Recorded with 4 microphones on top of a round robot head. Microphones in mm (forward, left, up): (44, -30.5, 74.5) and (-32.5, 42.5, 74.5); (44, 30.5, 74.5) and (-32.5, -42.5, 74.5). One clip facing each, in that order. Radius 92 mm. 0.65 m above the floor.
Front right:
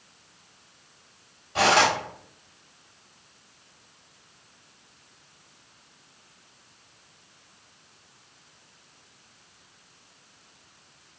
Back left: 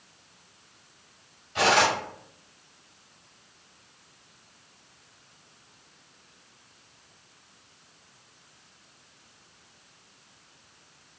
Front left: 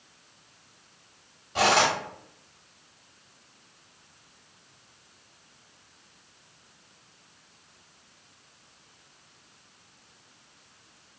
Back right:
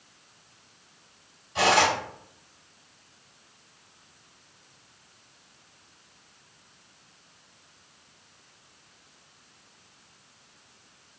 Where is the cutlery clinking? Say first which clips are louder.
Front right 2 dB, back right 1 dB; 5° left, 1.1 m.